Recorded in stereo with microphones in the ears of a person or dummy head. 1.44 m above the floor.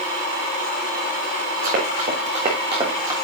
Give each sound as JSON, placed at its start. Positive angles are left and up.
{"t": 1.6, "sound": "running footsteps", "side_deg": -50, "distance_m": 5.0}